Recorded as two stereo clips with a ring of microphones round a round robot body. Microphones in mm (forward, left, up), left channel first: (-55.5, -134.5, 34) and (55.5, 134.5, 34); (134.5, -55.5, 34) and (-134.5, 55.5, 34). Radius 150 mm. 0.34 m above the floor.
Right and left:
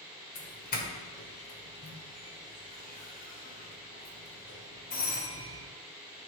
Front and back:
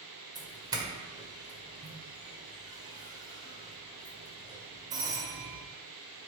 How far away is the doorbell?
About 1.6 m.